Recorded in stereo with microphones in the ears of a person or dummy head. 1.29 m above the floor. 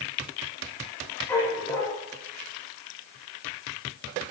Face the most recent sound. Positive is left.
turn(degrees=15)  # may be behind; listen again after turning